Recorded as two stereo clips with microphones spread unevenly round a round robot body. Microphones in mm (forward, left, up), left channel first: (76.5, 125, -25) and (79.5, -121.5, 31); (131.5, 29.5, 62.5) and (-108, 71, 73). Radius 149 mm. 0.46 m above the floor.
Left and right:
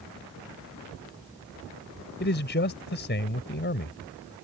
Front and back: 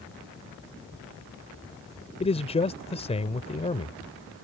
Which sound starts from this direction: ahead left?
A man speaking, at 2.2 s.